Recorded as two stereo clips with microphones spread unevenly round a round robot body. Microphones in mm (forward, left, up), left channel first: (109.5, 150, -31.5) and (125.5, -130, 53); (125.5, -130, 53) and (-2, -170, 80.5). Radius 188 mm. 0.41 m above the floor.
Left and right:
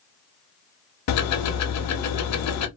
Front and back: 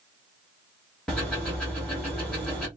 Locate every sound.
1.1 s ticking: 100° left, 0.6 m